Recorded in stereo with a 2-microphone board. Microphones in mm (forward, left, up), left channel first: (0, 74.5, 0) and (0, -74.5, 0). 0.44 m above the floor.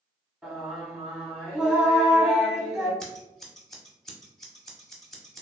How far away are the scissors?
About 0.7 m.